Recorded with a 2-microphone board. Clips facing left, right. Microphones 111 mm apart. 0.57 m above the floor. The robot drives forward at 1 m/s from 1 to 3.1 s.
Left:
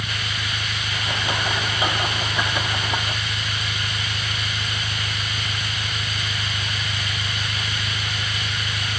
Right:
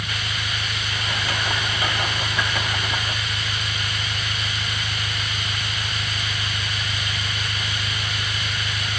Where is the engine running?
15° left (ahead or behind).